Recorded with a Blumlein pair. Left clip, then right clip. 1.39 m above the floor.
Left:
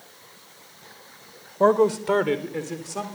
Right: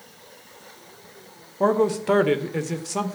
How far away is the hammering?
I don't hear hammering.